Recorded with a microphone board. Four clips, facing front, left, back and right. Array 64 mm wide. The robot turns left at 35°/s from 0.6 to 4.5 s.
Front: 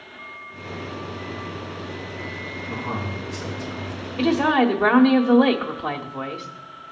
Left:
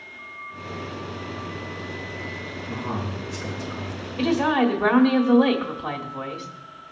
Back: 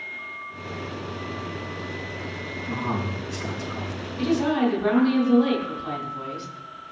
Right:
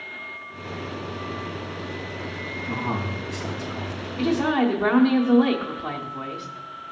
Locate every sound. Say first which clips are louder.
2.7 s a man speaking: right 2 dB, back 2 dB; 90° right, 4.5 m; by 4.1 s 140° right, 4.5 m
4.2 s a woman speaking: left 1 dB, front 4 dB; 15° left, 1.8 m; by 6.5 s 5° left, 1.8 m